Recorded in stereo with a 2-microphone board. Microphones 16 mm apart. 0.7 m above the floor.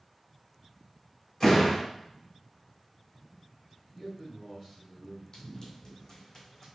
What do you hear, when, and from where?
1.4 s a door slam: 25° left (ahead or behind), 1.9 m
4.0 s a man speaking: 10° left (ahead or behind), 1.7 m
5.3 s running footsteps: 35° left (ahead or behind), 1.8 m; by 6.7 s 25° left (ahead or behind), 2.5 m